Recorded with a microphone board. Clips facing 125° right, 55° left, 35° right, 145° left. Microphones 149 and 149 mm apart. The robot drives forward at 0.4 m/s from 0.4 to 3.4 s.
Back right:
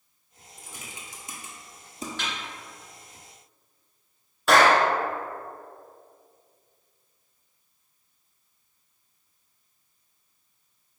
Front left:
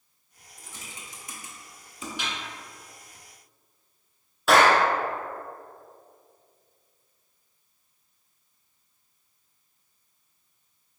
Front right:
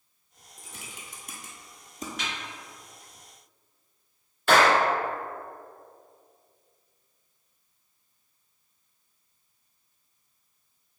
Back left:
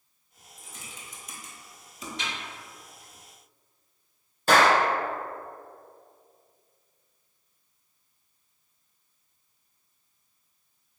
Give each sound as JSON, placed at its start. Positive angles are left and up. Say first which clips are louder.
{"t": 0.6, "sound": "typing on a keyboard", "louder": "back right 1 dB, front right 1 dB", "azimuth_deg": -45, "distance_m": 1.2}
{"t": 2.2, "sound": "a snare drum", "louder": "front left 1 dB, back left 1 dB", "azimuth_deg": 115, "distance_m": 1.9}
{"t": 4.5, "sound": "a clap", "louder": "even, even", "azimuth_deg": 145, "distance_m": 1.1}